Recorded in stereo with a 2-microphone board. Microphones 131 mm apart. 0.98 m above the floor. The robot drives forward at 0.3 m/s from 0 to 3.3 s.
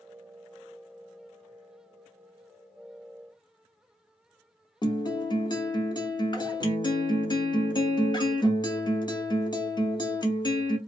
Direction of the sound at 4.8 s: 35° left (ahead or behind).